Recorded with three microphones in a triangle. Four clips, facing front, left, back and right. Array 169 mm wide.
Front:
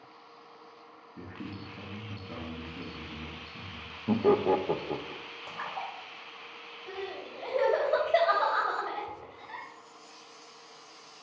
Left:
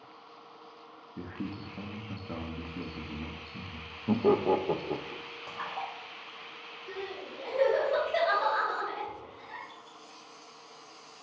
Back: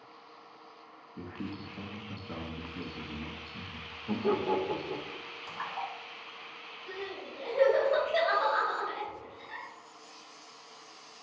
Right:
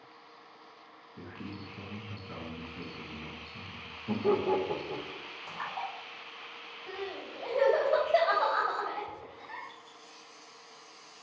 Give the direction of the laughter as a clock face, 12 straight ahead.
10 o'clock.